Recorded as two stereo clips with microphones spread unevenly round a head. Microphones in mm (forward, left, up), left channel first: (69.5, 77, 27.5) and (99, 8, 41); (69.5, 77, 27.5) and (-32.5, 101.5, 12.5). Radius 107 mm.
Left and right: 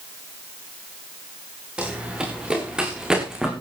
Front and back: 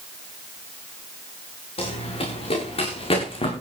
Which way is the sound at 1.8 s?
10° left.